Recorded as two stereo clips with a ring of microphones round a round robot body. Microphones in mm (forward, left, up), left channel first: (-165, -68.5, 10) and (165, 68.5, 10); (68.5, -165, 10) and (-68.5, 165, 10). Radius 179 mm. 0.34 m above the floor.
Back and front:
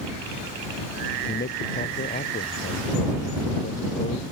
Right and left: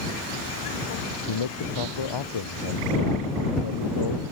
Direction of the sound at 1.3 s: 90° right.